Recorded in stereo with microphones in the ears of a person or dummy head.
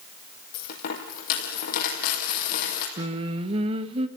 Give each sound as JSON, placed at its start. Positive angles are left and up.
{"t": 0.5, "sound": "a dropped coin", "side_deg": 45, "distance_m": 5.0}
{"t": 3.0, "sound": "singing", "side_deg": -40, "distance_m": 1.5}